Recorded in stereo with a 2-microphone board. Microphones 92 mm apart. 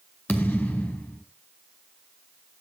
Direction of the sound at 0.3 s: 15° left (ahead or behind).